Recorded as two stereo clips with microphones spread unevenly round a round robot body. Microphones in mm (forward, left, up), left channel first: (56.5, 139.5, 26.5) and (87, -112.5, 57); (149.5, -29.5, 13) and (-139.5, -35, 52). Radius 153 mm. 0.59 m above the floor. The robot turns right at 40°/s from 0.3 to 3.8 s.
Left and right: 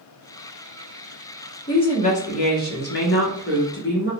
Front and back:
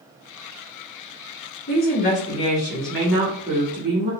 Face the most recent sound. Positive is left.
turn(degrees=120)